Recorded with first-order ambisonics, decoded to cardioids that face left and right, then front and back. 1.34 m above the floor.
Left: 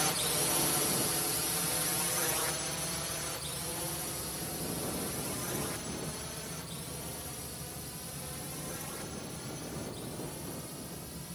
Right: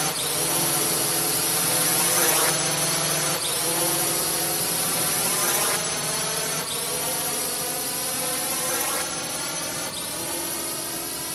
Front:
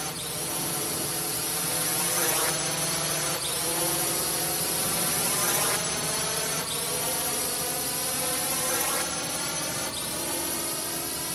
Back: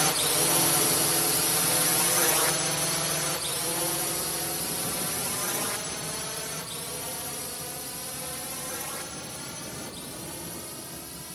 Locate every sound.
0.0 s a drone: 145° right; by 11.4 s 60° right